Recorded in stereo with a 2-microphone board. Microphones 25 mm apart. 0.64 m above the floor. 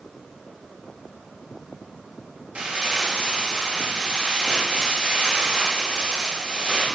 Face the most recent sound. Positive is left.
turn(degrees=-50)  # may be behind; listen again after turning